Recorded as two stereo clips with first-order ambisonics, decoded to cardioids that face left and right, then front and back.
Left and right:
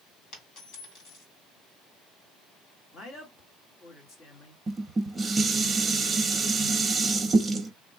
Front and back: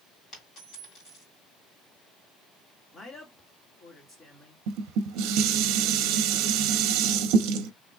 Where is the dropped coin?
55° left, 2.5 m.